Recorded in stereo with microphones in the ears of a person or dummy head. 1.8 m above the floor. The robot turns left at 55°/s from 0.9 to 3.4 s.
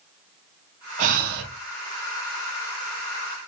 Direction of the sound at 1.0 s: 40° right (ahead or behind).